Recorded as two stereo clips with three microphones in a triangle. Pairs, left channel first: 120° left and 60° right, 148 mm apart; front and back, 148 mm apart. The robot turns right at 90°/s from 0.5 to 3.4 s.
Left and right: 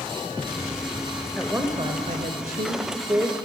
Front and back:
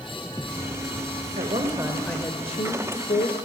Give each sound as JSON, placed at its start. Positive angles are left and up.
{"t": 1.4, "sound": "a woman speaking", "azimuth_deg": -150, "distance_m": 2.0}